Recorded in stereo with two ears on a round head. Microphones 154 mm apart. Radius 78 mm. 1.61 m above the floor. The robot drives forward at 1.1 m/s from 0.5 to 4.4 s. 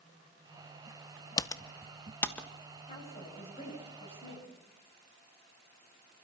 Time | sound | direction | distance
1.4 | typing on a keyboard | 20° left (ahead or behind) | 0.6 m
2.9 | a woman speaking | 40° left (ahead or behind) | 8 m